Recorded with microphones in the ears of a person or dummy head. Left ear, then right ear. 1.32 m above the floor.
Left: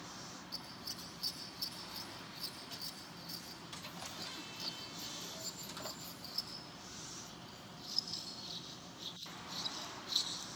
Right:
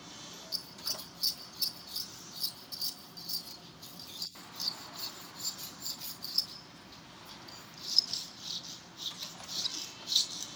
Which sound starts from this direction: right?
Scissors, at 0.5 s.